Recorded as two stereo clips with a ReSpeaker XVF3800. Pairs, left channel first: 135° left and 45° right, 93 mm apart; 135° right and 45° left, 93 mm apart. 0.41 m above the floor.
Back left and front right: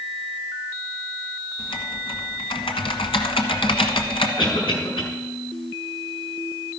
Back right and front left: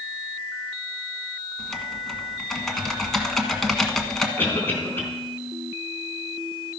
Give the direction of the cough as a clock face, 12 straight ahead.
7 o'clock.